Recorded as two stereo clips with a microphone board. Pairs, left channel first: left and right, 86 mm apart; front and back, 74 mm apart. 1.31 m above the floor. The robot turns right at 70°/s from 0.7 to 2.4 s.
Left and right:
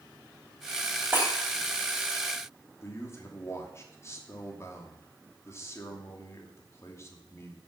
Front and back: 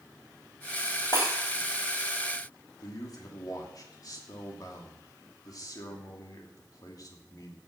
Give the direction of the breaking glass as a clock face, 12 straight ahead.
1 o'clock.